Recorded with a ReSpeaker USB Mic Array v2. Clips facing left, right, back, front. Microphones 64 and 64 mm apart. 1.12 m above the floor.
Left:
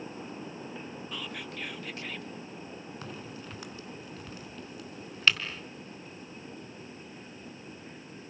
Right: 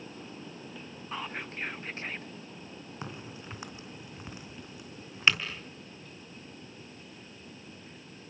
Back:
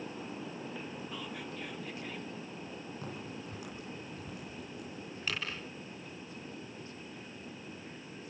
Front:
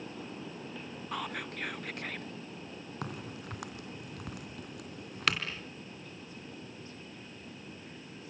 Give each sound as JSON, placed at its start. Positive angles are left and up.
{"t": 1.1, "sound": "whispering", "azimuth_deg": -30, "distance_m": 0.5}
{"t": 3.0, "sound": "a crack", "azimuth_deg": -20, "distance_m": 3.5}